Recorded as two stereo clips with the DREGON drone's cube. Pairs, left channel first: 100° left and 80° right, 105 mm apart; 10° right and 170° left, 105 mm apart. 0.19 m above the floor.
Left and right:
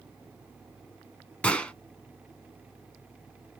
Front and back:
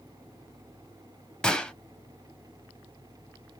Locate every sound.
1.4 s a gunshot: 50° left, 0.6 m